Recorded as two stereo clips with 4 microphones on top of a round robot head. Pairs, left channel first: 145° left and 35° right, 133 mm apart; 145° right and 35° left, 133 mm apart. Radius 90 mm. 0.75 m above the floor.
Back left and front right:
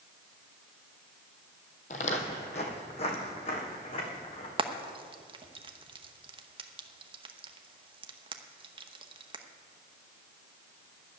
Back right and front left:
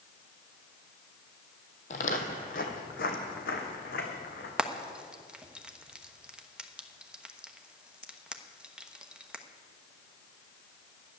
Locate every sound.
1.9 s footsteps: straight behind, 1.2 m; by 4.5 s 165° right, 2.5 m
4.6 s frying: 45° right, 1.1 m